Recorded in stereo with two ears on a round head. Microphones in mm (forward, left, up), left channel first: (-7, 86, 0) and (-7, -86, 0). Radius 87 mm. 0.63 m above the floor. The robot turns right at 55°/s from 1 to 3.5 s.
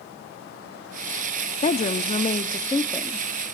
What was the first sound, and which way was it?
A woman speaking, 90° left.